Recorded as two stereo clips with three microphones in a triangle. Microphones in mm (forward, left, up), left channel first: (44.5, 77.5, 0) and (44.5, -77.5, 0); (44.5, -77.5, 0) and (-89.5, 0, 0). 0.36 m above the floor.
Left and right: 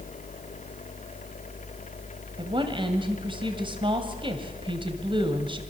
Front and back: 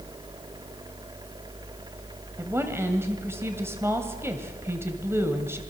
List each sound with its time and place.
2.4 s a woman speaking: 140° right, 2 m